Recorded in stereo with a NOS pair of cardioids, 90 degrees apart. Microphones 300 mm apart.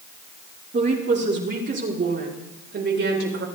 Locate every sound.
0.7 s a woman speaking: 35° right, 4 m; by 3.5 s 45° right, 5.5 m